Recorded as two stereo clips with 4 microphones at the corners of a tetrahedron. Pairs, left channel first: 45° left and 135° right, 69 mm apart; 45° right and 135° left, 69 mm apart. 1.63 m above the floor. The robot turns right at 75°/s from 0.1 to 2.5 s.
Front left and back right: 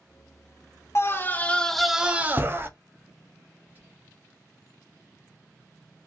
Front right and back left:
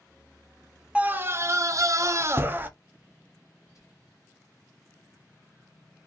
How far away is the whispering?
About 1.0 m.